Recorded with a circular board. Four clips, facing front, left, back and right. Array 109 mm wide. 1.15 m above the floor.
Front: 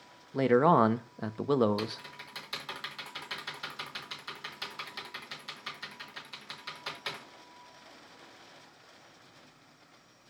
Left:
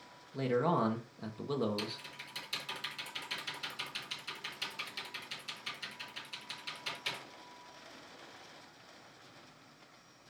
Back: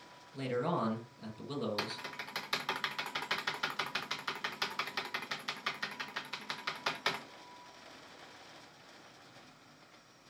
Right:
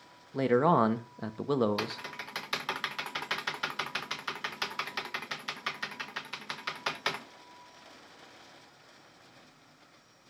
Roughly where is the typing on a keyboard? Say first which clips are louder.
Right 6 dB, front 3 dB; behind right.